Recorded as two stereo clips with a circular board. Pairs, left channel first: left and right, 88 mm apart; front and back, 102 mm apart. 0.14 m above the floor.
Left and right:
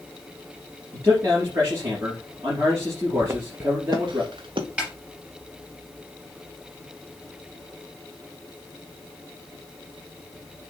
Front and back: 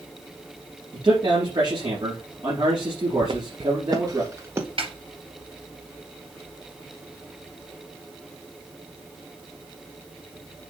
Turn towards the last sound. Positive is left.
turn(degrees=-160)